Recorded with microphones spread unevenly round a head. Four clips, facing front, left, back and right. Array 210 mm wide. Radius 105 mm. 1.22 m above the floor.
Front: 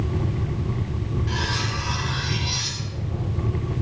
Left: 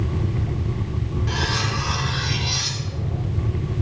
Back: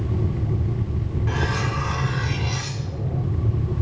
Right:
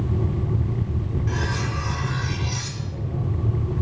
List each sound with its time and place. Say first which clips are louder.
1.3 s cutlery clinking: left 4 dB, back 6 dB; 165° left, 1.6 m